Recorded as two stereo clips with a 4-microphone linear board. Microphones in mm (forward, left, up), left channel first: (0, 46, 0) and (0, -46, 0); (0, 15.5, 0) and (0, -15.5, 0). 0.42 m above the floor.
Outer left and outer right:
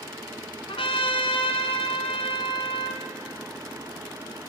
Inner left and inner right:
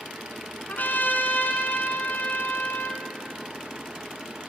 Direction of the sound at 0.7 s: 85° left.